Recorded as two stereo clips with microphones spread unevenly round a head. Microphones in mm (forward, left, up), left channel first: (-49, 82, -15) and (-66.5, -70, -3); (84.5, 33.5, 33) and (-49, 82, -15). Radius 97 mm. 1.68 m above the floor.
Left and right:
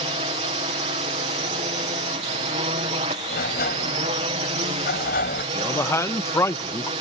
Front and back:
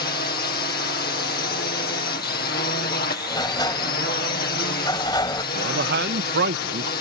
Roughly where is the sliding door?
Ahead left.